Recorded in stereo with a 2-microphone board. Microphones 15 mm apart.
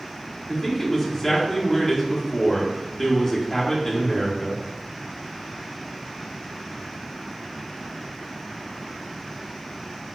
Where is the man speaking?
25° left (ahead or behind), 0.9 m.